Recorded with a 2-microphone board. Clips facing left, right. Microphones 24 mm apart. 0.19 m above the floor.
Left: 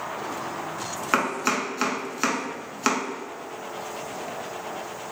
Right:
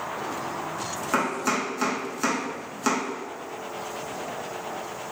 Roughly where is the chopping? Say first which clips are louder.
Left 1 dB; left.